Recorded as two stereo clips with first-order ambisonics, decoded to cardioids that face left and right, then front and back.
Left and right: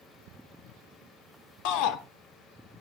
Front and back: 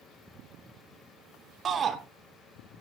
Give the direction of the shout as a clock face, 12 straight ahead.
8 o'clock.